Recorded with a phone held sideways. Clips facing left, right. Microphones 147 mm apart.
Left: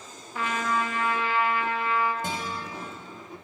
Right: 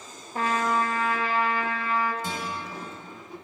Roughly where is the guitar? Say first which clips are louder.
Even; left.